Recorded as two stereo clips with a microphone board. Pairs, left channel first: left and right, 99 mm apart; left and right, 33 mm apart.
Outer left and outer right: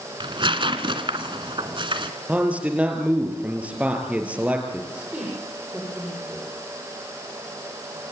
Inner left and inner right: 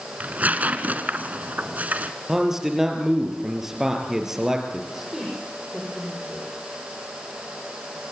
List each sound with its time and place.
0.2 s tearing paper: 55° right (ahead or behind), 1.7 m
2.3 s a man speaking: 15° right (ahead or behind), 4 m
4.9 s a woman speaking: 10° right (ahead or behind), 9 m